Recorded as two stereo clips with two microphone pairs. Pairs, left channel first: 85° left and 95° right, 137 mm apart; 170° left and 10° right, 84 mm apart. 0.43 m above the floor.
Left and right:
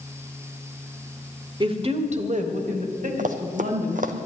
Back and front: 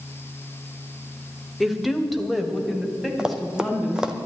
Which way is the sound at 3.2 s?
90° right.